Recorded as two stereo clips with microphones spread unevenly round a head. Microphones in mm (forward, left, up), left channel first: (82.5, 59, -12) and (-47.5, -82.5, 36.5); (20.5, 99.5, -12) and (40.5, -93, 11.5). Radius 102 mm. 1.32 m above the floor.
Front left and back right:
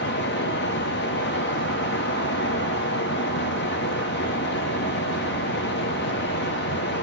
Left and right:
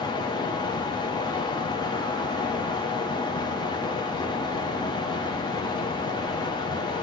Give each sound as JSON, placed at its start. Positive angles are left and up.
{"t": 0.0, "sound": "a fan", "azimuth_deg": 30, "distance_m": 0.9}